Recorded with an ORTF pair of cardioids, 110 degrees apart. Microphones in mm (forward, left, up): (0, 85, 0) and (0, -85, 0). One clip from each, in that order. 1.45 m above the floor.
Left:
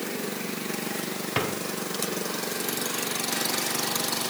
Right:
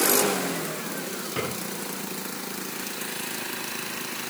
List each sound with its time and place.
1.4 s a drawer: 55° left, 3.5 m